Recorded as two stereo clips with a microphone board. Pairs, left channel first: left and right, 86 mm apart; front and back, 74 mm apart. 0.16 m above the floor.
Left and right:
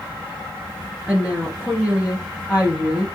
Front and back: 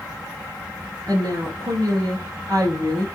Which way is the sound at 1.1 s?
165° right.